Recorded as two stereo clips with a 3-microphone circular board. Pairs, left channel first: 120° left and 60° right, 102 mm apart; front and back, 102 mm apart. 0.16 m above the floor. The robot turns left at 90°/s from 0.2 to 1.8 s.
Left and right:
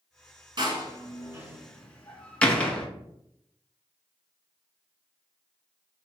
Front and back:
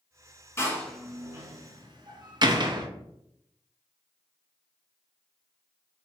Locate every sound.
0.6 s a door slam: 55° right, 1.3 m; by 2.9 s 165° right, 1.3 m